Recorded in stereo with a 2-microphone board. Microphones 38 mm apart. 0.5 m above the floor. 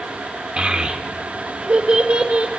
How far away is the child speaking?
About 0.9 m.